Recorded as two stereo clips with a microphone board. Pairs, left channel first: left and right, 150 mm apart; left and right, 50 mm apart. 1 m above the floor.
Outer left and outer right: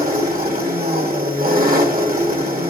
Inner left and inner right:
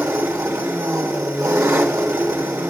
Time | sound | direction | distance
0.0 | an engine running | 70° right (ahead or behind) | 2.0 m